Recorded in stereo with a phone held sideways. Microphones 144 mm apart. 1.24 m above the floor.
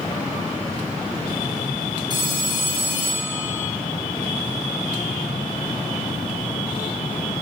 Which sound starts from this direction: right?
A phone ringing, at 2.1 s.